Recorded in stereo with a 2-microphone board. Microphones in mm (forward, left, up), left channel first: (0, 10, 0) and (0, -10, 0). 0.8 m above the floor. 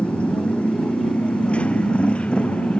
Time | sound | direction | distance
0.0 | a motorcycle | 70° left (ahead or behind) | ?